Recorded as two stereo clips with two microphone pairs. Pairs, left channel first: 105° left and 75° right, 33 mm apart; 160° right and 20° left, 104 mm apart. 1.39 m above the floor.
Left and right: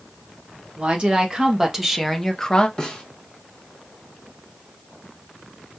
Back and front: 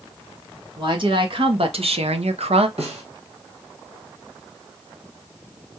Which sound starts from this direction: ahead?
A woman speaking, at 0.8 s.